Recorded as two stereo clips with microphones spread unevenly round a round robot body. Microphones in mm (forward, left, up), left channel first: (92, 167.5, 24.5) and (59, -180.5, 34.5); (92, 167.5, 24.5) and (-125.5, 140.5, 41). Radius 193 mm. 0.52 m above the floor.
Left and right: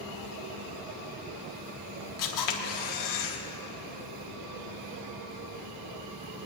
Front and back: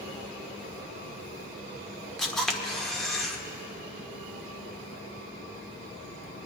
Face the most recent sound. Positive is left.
turn(degrees=95)